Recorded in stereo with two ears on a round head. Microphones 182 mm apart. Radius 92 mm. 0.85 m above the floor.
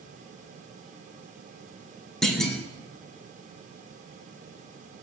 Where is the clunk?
5° left (ahead or behind), 1.8 m.